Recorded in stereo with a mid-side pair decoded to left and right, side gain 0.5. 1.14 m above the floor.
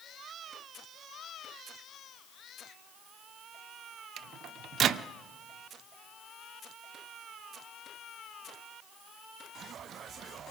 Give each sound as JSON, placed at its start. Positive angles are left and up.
{"t": 4.2, "sound": "a microwave", "azimuth_deg": -60, "distance_m": 0.7}